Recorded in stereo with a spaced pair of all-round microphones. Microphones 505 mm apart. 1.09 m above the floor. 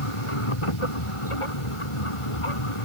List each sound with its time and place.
0.0 s a machine running: 75° left (ahead or behind)